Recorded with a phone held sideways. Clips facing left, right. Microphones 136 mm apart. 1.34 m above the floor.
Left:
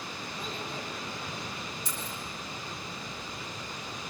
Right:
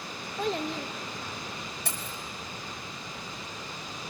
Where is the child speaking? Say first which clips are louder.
Right 10 dB; 70° right (ahead or behind), 1.3 m.